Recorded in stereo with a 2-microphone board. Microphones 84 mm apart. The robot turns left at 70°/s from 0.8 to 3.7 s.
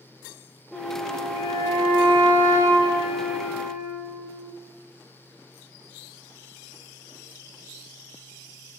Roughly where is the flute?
Ahead.